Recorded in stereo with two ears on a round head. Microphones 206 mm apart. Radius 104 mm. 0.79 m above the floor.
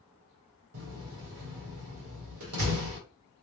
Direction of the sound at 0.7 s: 65° right (ahead or behind).